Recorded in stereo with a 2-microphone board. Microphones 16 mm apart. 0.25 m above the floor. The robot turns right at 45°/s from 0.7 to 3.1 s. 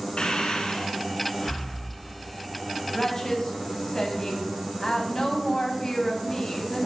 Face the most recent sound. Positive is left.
turn(degrees=40)  # may be behind; listen again after turning